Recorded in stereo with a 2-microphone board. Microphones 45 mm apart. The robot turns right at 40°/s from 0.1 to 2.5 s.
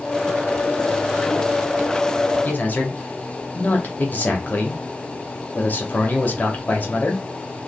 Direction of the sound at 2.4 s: 40° left (ahead or behind).